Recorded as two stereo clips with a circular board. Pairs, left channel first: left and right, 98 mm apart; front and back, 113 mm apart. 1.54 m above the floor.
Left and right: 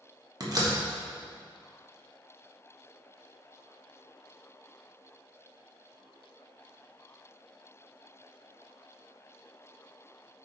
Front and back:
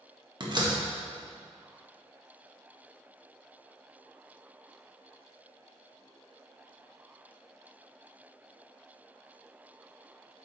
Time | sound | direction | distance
0.4 | a door slam | 135° right | 1.4 m